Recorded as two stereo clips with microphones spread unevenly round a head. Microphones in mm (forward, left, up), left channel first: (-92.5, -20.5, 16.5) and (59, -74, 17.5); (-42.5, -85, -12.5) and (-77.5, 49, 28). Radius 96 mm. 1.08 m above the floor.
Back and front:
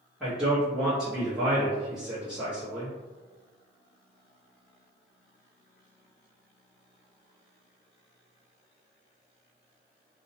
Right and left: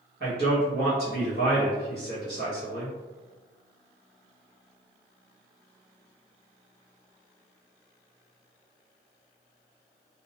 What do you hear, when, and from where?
0.2 s a man speaking: 65° left, 0.9 m